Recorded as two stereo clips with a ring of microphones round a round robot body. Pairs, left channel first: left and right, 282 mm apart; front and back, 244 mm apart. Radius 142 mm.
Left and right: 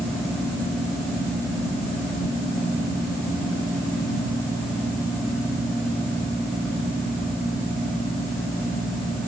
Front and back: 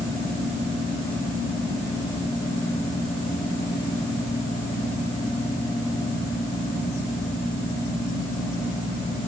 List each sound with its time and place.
Only background noise.